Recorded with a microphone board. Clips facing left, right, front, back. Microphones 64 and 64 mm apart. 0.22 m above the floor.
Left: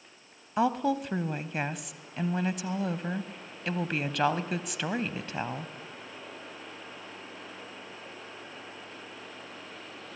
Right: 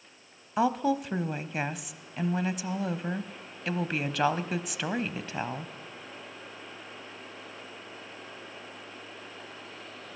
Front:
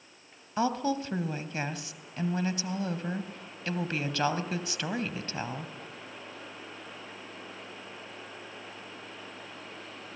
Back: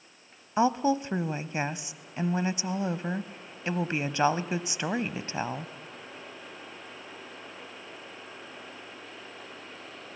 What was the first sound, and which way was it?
A woman speaking, 175° right.